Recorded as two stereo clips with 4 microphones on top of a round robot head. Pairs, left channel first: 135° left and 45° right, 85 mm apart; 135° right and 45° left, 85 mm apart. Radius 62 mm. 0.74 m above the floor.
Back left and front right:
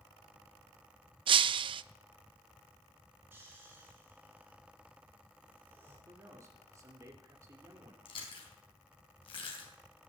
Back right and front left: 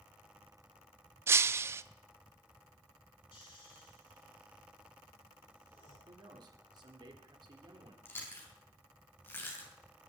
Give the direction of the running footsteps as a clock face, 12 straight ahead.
I don't hear running footsteps.